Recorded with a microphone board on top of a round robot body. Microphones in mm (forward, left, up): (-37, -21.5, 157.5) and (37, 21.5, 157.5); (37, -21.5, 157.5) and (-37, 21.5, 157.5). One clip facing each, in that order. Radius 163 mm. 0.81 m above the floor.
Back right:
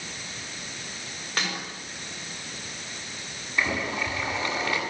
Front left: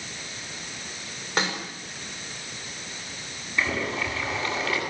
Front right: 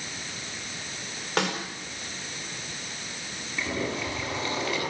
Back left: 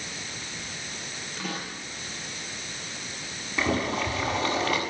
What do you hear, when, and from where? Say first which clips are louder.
1.4 s a snare drum: front left 4 dB, front right 8 dB; 40° right, 6 m
3.6 s boiling: even, back left 4 dB; 135° left, 8.5 m